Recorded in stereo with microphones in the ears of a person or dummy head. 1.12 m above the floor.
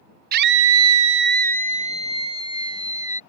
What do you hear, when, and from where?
0.3 s a scream: 50° right (ahead or behind); by 3.2 s 15° right (ahead or behind)